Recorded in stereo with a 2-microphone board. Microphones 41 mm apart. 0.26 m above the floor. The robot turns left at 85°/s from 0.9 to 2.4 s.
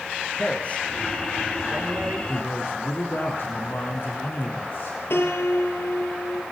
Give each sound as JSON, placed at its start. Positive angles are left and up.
{"t": 0.4, "sound": "a man speaking", "side_deg": 35, "distance_m": 4.5}
{"t": 2.3, "sound": "a man speaking", "side_deg": 65, "distance_m": 3.5}
{"t": 5.1, "sound": "a piano", "side_deg": 70, "distance_m": 2.0}